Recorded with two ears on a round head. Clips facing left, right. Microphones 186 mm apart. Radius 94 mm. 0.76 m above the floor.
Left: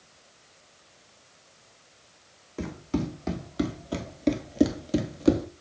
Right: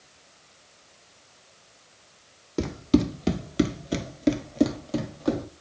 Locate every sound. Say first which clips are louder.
2.6 s running footsteps: right 8 dB; 60° right (ahead or behind), 1.3 m; by 5.5 s 35° left (ahead or behind), 1.0 m